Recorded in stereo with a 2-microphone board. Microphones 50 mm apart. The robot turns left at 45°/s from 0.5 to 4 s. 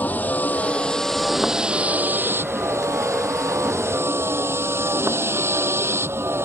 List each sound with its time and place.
0.0 s a vehicle: 35° left; by 6.5 s 120° right